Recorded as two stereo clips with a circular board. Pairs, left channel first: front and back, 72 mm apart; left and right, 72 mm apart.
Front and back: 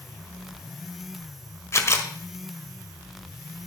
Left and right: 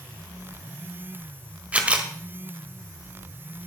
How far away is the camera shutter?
About 1.4 m.